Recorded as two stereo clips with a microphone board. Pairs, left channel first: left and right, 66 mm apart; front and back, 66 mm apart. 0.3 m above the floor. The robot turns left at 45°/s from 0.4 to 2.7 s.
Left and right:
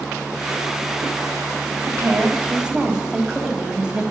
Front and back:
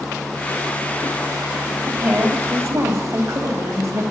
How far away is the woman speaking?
About 1.5 m.